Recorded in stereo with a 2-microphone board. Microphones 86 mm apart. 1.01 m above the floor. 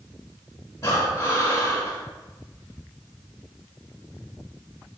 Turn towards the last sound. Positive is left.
turn(degrees=35)  # may be behind; listen again after turning